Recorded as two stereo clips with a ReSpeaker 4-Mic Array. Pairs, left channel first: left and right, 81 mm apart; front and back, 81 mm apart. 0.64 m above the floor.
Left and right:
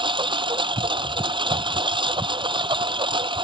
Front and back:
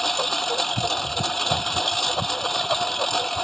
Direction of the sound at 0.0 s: 85° right.